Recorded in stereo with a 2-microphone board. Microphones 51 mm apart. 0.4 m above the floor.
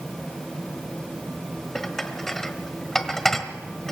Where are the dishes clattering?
10° left (ahead or behind), 1.4 m.